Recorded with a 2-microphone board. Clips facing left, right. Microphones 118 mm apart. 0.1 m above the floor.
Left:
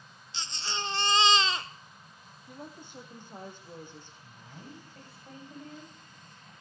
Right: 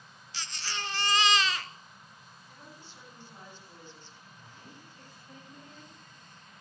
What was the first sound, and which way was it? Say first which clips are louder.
A baby crying: left 2 dB; 30° left (ahead or behind).